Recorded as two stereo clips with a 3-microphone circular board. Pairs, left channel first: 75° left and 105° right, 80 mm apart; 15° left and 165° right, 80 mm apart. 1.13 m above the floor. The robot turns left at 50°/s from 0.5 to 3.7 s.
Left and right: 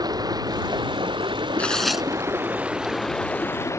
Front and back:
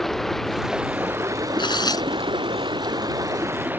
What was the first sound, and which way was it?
Running water, 70° right.